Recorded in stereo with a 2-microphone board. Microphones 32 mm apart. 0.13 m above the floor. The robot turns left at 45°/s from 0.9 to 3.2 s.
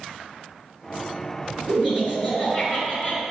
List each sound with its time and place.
1.7 s laughter: 115° right, 1.9 m; by 3.2 s 175° left, 1.9 m